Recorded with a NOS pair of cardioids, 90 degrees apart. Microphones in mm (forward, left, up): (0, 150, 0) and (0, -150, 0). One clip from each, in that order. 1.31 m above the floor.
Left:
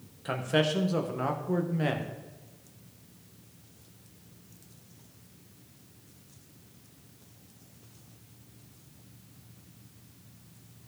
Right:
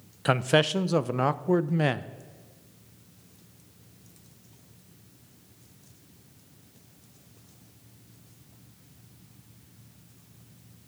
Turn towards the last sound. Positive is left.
turn(degrees=-50)